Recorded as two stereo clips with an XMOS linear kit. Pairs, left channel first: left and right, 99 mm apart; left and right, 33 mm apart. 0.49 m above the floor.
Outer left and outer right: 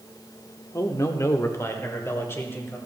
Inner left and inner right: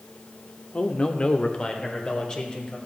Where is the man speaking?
30° left (ahead or behind), 0.8 m; by 2.8 s 25° left (ahead or behind), 1.9 m.